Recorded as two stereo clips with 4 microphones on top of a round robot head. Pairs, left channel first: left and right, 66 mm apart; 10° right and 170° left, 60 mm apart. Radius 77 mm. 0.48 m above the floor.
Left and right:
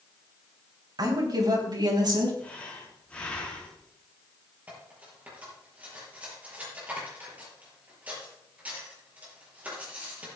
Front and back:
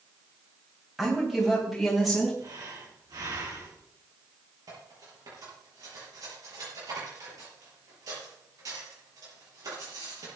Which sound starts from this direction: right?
A woman speaking, at 1.0 s.